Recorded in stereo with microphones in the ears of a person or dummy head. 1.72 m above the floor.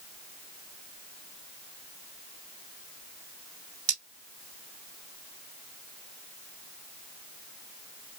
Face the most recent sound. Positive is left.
turn(degrees=-75)  # may be behind; listen again after turning